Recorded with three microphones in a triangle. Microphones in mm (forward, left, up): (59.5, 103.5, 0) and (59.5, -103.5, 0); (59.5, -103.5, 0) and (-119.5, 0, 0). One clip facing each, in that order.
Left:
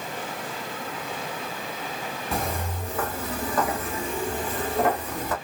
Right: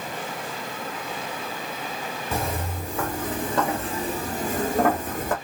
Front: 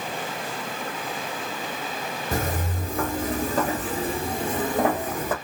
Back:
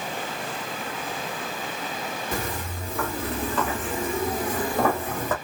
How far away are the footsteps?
About 2.5 m.